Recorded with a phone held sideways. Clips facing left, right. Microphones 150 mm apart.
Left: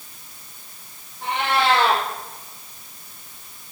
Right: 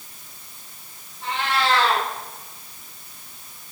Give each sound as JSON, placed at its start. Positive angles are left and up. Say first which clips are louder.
{"t": 1.2, "sound": "a cat meowing", "louder": "left 3 dB", "side_deg": 60, "distance_m": 4.0}